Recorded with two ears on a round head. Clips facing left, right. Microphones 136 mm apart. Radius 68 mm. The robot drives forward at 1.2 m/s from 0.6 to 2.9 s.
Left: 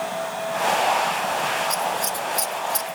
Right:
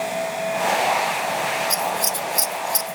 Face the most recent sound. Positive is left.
turn(degrees=-20)  # may be behind; listen again after turning